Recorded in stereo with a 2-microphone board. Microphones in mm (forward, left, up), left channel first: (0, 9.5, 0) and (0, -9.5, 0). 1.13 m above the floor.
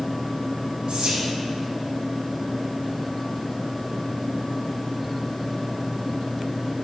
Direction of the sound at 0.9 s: 70° right (ahead or behind).